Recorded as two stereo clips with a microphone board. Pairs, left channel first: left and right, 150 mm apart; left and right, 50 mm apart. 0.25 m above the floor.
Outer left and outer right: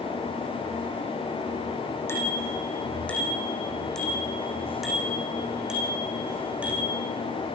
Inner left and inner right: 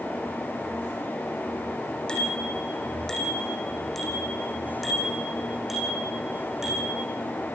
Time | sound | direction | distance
2.1 | a bicycle bell | 15° left (ahead or behind) | 8.5 m